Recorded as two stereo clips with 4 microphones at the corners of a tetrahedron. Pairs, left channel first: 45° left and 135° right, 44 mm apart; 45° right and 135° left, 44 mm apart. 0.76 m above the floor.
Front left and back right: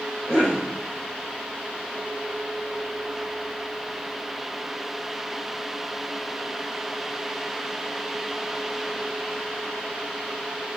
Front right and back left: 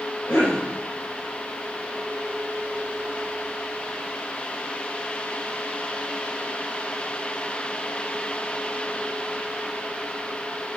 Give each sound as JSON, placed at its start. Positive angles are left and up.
{"t": 0.3, "sound": "a cough", "azimuth_deg": -30, "distance_m": 3.5}